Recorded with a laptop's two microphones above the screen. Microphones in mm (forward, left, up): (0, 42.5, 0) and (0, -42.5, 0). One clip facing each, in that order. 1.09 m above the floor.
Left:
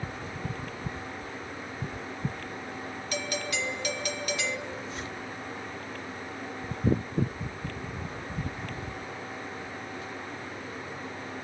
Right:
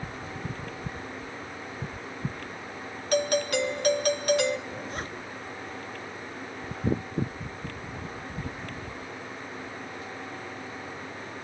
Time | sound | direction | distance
3.1 | a doorbell | 50° right (ahead or behind) | 1.8 m
4.7 | a zipper | 50° right (ahead or behind) | 1.5 m